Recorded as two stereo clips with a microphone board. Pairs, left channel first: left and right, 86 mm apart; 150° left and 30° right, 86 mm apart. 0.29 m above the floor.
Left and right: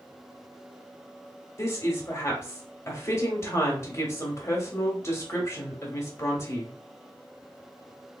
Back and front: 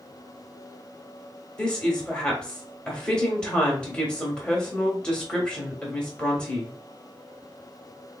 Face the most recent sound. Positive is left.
turn(degrees=80)